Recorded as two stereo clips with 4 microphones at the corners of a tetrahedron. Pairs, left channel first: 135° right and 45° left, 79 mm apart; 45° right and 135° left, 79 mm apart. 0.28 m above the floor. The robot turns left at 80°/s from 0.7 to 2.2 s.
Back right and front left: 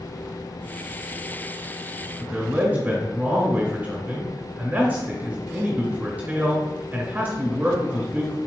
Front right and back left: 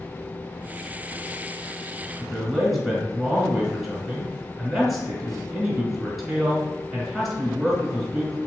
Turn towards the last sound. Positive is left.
turn(degrees=50)